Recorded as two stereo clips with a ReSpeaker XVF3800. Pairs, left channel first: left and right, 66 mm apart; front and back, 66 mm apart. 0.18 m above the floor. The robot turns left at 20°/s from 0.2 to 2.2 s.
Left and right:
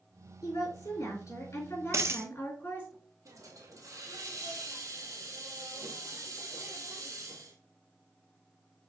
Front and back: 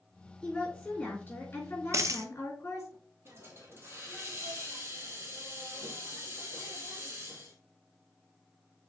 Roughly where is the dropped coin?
Behind right.